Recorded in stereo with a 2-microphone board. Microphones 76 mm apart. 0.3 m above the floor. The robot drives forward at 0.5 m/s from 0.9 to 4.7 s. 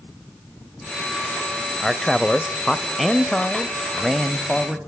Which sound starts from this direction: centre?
A man speaking, at 1.8 s.